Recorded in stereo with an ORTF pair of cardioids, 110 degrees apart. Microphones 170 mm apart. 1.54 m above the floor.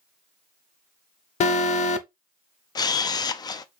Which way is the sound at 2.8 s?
25° left.